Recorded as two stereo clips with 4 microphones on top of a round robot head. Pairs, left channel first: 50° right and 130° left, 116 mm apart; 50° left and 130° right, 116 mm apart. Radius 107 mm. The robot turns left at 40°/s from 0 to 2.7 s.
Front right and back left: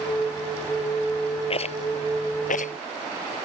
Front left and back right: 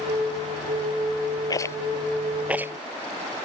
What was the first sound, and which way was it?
A rattle, 10° right.